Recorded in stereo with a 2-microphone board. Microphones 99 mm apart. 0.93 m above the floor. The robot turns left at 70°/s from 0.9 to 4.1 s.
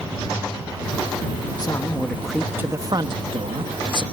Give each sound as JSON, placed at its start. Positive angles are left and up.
{"t": 1.6, "sound": "a man speaking", "azimuth_deg": 45}